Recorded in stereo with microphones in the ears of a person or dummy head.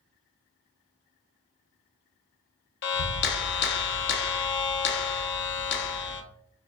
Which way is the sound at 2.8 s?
65° left (ahead or behind).